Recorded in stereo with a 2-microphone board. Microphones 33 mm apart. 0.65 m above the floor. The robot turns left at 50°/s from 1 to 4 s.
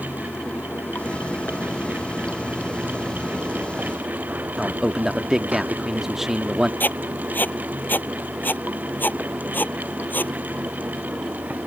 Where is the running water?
90° left; by 11.7 s 60° right.